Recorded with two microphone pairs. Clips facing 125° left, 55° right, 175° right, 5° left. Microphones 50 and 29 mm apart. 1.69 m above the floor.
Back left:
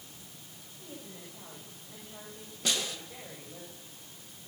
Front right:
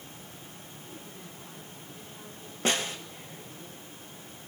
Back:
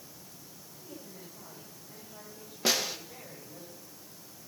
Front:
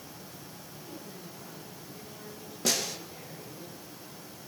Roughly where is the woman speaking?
Behind left.